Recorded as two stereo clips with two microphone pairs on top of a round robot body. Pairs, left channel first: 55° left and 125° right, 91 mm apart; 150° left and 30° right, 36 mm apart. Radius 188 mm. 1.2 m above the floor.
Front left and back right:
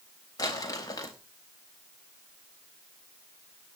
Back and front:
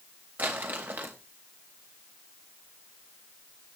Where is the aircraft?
I don't hear an aircraft.